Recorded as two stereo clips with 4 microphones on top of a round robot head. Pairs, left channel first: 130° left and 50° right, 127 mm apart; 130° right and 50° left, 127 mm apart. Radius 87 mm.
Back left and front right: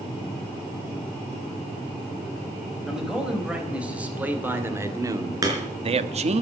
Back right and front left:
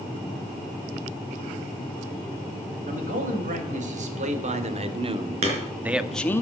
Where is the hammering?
10° left, 4.5 m.